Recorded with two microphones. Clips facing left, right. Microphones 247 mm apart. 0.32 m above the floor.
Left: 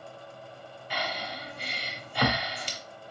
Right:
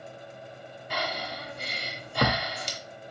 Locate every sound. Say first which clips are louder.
0.9 s breathing: right 2 dB; 45° right (ahead or behind), 1.0 m